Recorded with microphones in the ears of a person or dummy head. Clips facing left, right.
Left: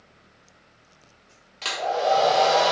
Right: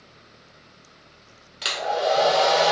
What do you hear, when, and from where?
1.6 s a hair dryer: 5° right (ahead or behind), 1.0 m